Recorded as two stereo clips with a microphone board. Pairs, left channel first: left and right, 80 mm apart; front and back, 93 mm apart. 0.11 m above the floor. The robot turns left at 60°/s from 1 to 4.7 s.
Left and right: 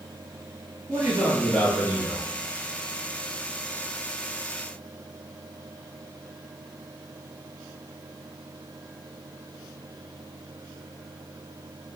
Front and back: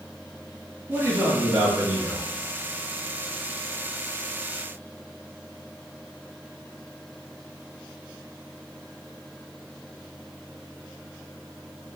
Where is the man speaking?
130° right, 1.8 m; by 2.3 s 155° left, 1.8 m.